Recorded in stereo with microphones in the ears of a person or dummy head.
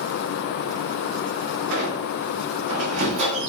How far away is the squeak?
About 1.3 m.